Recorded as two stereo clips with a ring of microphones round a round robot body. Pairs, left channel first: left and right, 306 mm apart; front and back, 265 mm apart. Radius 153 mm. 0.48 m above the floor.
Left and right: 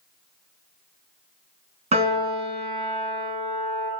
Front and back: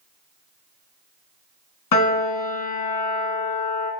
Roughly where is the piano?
Ahead.